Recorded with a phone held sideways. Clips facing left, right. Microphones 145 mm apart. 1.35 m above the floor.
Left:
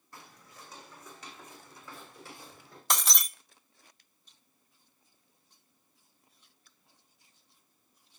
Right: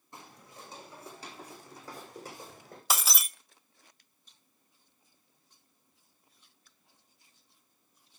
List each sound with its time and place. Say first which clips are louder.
0.1 s footsteps: right 3 dB; 20° right (ahead or behind), 4 m; by 2.8 s 45° right (ahead or behind), 4.5 m
2.9 s breaking glass: even; 5° right (ahead or behind), 0.6 m